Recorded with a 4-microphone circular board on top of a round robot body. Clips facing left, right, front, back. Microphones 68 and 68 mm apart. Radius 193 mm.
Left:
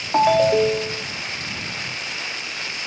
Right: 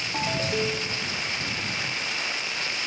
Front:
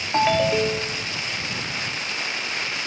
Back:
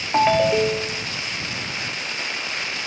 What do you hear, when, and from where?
0.1 s a ringtone: 100° left